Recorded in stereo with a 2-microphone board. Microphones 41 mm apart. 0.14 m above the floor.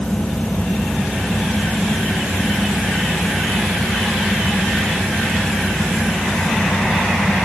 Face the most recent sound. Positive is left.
No sound to turn to.